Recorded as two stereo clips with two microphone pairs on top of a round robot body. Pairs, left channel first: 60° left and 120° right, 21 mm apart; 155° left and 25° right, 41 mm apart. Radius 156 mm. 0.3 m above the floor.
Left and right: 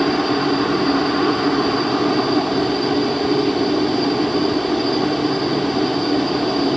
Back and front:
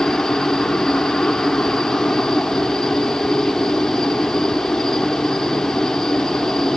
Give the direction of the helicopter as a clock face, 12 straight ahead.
6 o'clock.